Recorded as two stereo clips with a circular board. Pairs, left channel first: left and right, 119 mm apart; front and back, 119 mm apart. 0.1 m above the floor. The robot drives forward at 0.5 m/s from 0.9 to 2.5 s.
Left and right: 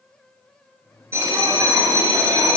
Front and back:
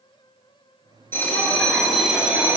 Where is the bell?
50° right, 1.2 m; by 2.6 s 125° right, 1.2 m.